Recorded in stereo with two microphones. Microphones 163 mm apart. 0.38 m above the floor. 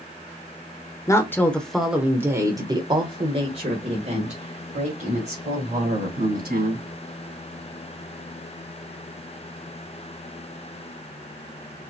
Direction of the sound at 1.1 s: 20° left (ahead or behind).